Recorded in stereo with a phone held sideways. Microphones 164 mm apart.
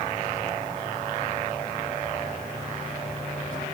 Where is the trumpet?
No trumpet in this recording.